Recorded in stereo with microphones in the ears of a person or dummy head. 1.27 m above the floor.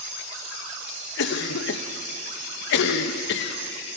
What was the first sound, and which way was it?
A cough, 70° left (ahead or behind).